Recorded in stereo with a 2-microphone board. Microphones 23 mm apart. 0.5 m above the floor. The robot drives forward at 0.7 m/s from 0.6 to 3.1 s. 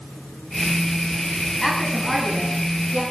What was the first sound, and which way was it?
A woman speaking, 10° left (ahead or behind).